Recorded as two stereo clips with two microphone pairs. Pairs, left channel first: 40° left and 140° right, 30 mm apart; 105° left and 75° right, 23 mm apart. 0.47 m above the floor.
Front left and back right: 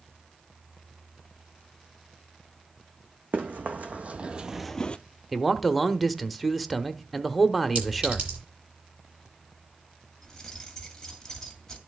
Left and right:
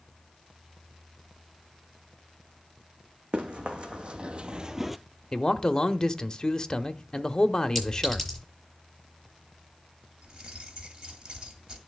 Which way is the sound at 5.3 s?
140° left.